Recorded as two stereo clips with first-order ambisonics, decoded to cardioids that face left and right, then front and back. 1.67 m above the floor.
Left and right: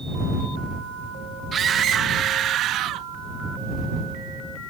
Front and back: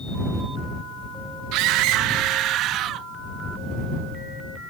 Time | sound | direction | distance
1.5 | a scream | 155° right | ?